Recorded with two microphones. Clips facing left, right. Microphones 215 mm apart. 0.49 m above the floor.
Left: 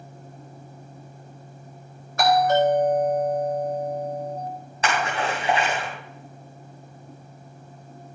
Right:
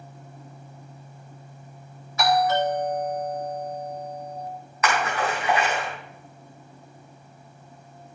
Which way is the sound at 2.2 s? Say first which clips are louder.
Left 3 dB; 60° left (ahead or behind).